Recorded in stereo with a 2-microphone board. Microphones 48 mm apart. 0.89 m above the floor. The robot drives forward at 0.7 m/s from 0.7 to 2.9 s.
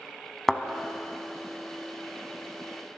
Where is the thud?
Centre (ahead or behind), 0.8 m.